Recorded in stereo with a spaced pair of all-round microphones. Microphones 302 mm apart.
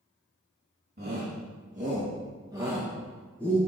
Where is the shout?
35° right (ahead or behind), 2.5 m; by 3.6 s 10° left (ahead or behind), 1.8 m.